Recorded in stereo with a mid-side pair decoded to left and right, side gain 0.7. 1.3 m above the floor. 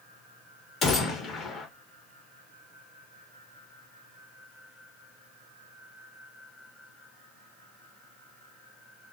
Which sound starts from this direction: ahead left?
A gunshot, at 0.8 s.